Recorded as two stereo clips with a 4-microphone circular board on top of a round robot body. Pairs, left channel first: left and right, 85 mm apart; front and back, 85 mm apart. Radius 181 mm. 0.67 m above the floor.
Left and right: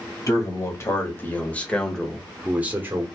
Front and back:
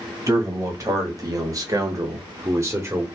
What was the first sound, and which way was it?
A man speaking, 135° left.